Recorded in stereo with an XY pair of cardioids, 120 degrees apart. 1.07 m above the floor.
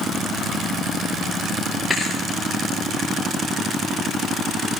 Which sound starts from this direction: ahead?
A thud, at 1.9 s.